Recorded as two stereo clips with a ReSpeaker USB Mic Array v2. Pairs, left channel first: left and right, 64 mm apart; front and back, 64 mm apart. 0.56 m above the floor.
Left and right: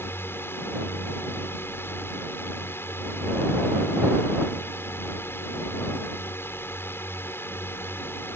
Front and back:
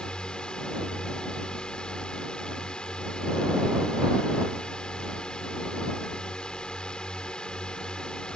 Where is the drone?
70° left.